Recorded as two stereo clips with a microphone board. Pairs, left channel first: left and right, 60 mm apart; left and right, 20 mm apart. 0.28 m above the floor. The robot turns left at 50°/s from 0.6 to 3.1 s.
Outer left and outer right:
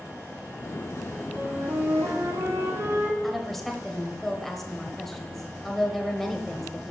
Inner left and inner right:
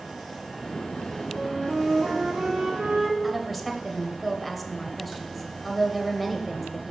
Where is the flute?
30° right, 1.4 m; by 3.1 s 120° right, 1.4 m.